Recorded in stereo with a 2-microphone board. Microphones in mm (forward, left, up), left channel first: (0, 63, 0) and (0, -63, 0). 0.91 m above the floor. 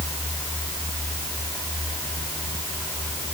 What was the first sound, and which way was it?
Only background noise.